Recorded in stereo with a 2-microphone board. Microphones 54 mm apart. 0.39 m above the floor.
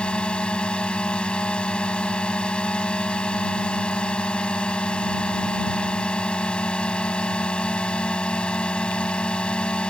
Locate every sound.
0.0 s a drone: 20° left (ahead or behind)